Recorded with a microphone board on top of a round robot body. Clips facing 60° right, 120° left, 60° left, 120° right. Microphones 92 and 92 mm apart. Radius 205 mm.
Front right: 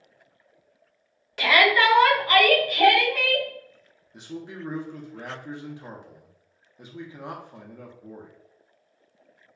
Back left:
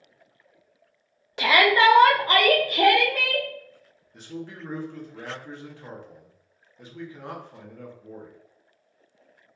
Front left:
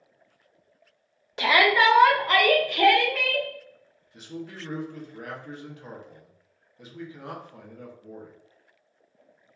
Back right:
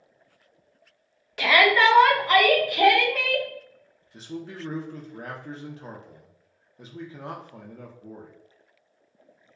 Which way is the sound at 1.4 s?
85° left.